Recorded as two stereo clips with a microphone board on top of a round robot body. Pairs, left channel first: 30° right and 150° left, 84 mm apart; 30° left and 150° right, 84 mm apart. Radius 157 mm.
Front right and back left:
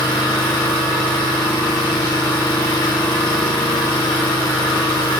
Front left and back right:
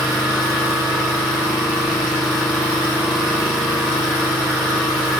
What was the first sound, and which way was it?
An engine running, 70° right.